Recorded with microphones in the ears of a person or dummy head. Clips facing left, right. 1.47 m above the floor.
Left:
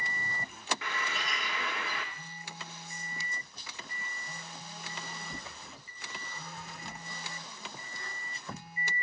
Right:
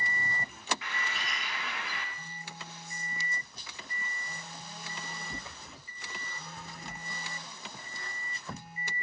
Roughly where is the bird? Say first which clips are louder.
Left 2 dB; left.